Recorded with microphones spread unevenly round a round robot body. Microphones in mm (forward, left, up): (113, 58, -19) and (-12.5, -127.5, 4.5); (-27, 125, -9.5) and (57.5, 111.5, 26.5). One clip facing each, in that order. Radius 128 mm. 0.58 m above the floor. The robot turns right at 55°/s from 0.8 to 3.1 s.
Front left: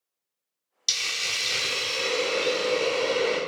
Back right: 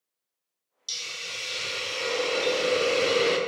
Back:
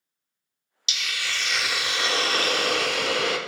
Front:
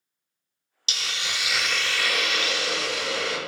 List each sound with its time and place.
0.9 s a hiss: 50° left, 0.6 m; by 3.4 s 170° left, 0.6 m